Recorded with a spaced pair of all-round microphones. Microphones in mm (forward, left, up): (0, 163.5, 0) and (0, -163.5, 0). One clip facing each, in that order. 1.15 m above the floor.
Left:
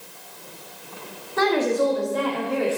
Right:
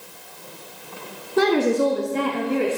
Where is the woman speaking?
40° right (ahead or behind), 1.4 m; by 2.8 s 30° right (ahead or behind), 2.5 m.